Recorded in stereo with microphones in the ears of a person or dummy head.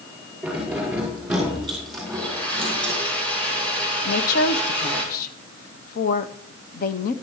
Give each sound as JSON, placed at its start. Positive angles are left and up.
{"t": 0.4, "sound": "keys jangling", "side_deg": -5, "distance_m": 5.0}
{"t": 2.1, "sound": "a blender", "side_deg": 15, "distance_m": 5.0}
{"t": 4.0, "sound": "a woman speaking", "side_deg": 60, "distance_m": 1.0}